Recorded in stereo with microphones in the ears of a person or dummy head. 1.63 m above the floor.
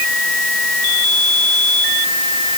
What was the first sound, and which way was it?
Only background noise.